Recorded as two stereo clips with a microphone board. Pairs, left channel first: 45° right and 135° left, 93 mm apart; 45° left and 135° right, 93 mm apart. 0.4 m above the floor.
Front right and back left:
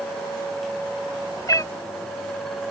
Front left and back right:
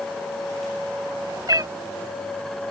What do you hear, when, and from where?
1.5 s a cat meowing: 95° right